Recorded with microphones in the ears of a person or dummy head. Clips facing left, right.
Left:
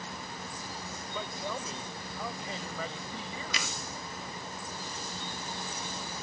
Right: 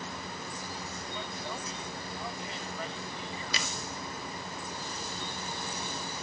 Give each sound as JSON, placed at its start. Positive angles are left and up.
{"t": 1.1, "sound": "a man speaking", "side_deg": 85}
{"t": 3.5, "sound": "a finger snap", "side_deg": -45}